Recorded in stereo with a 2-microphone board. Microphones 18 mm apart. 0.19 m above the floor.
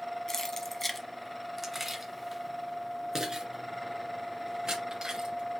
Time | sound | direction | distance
0.3 | keys jangling | 30° left (ahead or behind) | 1.0 m